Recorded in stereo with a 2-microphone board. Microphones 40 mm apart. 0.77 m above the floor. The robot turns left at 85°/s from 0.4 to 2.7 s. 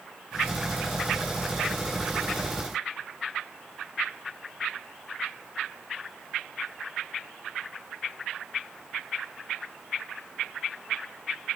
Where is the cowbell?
I don't hear a cowbell.